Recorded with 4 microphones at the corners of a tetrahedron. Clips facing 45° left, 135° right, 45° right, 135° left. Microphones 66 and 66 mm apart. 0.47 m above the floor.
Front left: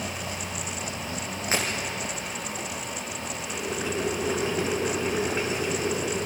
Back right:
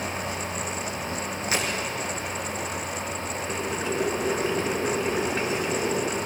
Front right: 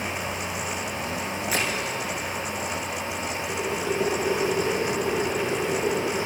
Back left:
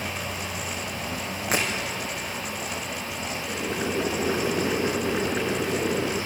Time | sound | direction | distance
1.5 | breaking glass | 100° left | 5.5 m
3.5 | boiling | 125° left | 4.5 m